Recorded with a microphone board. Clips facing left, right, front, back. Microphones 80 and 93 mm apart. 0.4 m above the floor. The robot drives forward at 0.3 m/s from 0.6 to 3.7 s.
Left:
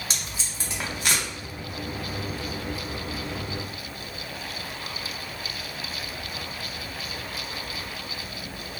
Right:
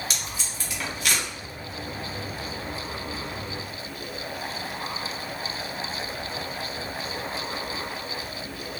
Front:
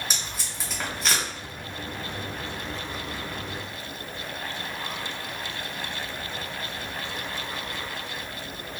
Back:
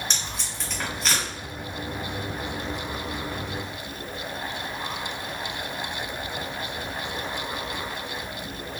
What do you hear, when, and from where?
0.1 s tape being pulled: 80° left, 1.5 m; by 1.2 s 95° left, 1.5 m